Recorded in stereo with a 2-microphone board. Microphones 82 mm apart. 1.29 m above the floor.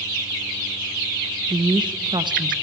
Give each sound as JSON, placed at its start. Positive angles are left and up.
{"t": 1.5, "sound": "a woman speaking", "side_deg": -70, "distance_m": 1.0}